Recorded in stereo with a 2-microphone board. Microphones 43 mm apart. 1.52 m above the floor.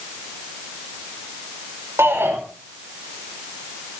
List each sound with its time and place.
2.0 s a shout: 75° right (ahead or behind), 6.5 m